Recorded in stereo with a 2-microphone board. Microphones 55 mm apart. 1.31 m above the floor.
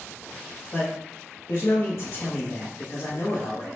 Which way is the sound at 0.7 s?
55° left (ahead or behind).